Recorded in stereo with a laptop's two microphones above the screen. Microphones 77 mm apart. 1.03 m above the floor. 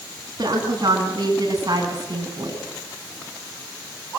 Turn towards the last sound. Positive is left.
turn(degrees=-45)  # may be behind; listen again after turning